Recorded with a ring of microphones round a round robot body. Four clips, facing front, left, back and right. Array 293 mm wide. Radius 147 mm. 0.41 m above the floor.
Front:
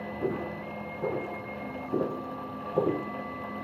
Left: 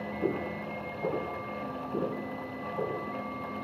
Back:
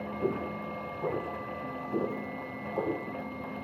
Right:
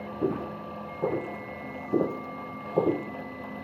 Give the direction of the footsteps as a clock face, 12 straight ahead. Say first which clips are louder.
Right 3 dB, even; 3 o'clock.